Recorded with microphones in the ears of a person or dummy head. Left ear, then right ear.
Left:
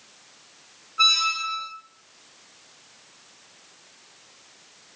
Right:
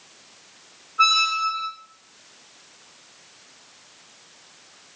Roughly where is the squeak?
Left.